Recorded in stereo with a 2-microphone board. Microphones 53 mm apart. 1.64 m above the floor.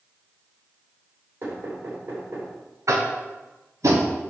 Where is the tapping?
70° right (ahead or behind), 1.2 m.